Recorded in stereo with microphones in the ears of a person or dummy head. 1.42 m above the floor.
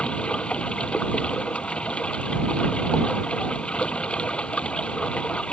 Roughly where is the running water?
Centre.